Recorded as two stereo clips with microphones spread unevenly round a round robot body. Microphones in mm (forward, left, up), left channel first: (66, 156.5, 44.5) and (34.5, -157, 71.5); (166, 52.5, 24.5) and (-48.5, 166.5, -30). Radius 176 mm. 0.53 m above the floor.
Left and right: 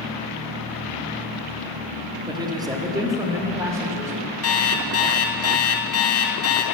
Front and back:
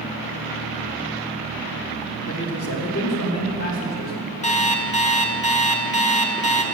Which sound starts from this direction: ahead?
A man speaking, at 2.2 s.